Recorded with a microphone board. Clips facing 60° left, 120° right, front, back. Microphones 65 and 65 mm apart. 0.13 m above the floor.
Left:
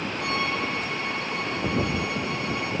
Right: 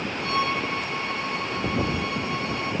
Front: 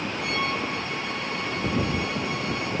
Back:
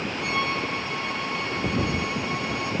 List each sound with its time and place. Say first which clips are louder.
0.2 s a violin: right 3 dB, back 1 dB; 90° left, 5.5 m